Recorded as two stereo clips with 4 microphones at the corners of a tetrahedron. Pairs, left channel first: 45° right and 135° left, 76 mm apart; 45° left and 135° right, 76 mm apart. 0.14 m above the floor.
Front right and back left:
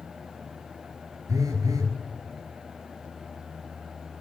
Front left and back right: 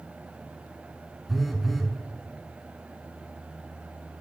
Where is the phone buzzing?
135° left, 0.8 m.